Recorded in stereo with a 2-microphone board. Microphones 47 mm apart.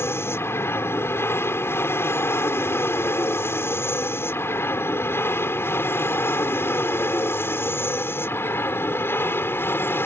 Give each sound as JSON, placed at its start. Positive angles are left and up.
{"t": 0.0, "sound": "an aircraft", "side_deg": 60}